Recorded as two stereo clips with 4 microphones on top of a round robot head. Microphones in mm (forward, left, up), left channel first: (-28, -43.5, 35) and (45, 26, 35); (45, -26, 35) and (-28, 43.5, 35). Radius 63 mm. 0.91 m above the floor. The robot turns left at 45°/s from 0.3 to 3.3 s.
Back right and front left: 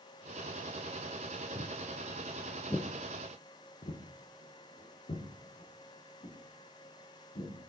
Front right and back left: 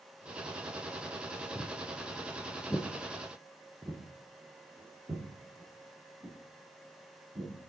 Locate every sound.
1.6 s footsteps: 30° left, 1.0 m; by 7.7 s 170° right, 3.5 m